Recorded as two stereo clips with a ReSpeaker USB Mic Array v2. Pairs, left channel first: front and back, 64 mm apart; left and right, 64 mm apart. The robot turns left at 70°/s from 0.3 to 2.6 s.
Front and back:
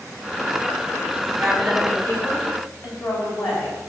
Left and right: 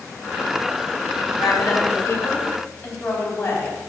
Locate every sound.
1.4 s a woman speaking: 100° left, 5 m; by 3.8 s 15° left, 5 m